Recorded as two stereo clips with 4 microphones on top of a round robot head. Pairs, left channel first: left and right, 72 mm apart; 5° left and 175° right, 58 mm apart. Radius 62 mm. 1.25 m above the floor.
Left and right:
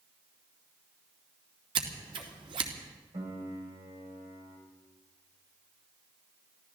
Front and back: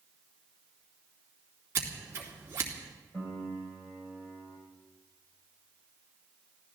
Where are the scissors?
115° right, 2.5 m.